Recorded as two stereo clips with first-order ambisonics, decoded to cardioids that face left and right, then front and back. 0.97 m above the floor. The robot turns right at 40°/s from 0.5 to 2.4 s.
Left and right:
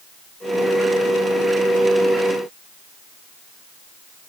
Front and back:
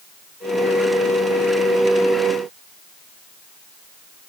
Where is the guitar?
No guitar in this recording.